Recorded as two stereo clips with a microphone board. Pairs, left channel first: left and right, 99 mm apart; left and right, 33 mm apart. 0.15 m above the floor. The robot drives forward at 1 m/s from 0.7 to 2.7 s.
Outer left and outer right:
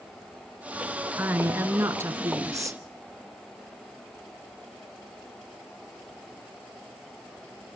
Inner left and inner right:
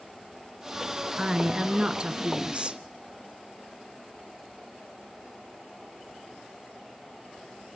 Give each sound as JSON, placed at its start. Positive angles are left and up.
{"t": 1.2, "sound": "a woman speaking", "side_deg": -20, "distance_m": 2.0}